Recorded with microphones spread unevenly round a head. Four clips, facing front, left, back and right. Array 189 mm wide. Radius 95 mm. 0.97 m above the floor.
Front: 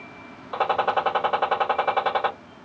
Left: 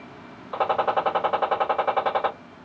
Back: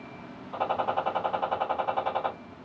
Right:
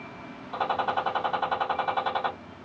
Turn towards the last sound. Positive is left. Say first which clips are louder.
# left 5 dB, front 5 dB
turn(degrees=40)